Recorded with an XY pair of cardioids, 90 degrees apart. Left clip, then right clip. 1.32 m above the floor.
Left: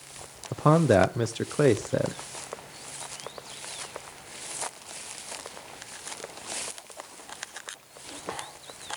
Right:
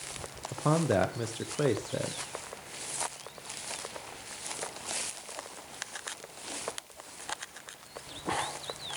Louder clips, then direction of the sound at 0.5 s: Left 7 dB; 50° left.